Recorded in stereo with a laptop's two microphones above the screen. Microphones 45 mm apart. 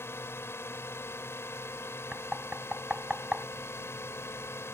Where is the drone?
70° left (ahead or behind); by 4.8 s 75° left (ahead or behind).